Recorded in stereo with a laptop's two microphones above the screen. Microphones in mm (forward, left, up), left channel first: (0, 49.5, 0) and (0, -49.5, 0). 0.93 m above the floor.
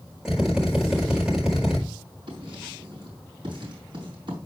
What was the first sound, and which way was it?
A drill, 5° right (ahead or behind).